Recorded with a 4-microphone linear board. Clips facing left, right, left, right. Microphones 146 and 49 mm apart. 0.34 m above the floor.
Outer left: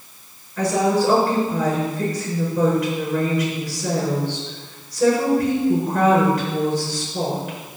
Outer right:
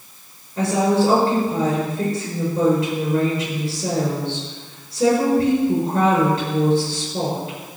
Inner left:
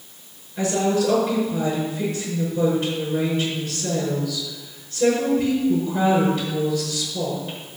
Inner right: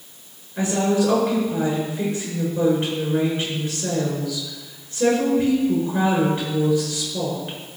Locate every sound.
0.6 s a woman speaking: 25° right (ahead or behind), 5.5 m